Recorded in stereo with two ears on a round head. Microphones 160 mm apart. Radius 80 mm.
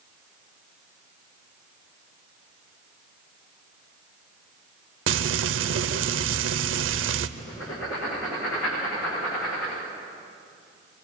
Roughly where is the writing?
Left.